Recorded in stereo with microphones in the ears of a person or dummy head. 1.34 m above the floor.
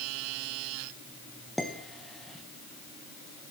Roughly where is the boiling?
I don't hear boiling.